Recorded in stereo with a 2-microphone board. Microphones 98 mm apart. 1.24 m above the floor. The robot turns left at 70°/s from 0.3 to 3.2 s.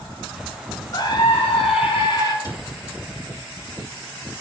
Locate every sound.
0.9 s a scream: 135° left, 4.5 m; by 2.3 s 40° left, 4.5 m
2.4 s a cupboard door: 45° left (ahead or behind), 2.5 m; by 2.7 s 60° left (ahead or behind), 2.5 m